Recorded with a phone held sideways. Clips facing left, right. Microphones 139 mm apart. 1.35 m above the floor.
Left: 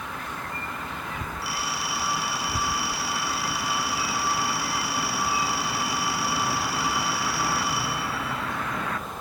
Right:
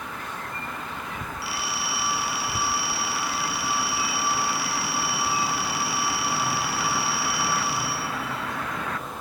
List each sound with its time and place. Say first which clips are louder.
1.4 s a phone ringing: even; 40° left (ahead or behind), 5.5 m